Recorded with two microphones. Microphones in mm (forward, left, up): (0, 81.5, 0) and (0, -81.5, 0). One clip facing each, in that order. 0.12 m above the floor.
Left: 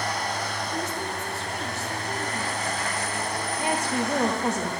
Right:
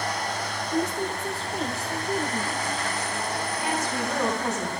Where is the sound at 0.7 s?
40° right (ahead or behind), 3 m.